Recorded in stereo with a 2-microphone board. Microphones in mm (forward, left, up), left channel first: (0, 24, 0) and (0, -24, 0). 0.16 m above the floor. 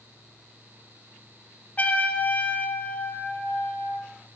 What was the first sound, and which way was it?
A trumpet, 30° left (ahead or behind).